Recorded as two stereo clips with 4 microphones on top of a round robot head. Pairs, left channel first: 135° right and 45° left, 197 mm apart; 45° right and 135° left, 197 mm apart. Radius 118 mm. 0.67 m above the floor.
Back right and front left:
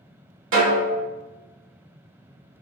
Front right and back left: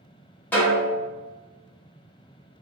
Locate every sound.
0.5 s a snare drum: 35° left, 1.4 m